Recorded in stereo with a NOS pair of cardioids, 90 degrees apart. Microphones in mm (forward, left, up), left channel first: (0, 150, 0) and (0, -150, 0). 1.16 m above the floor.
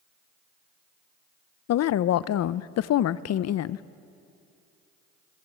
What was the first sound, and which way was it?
A woman speaking, 60° left.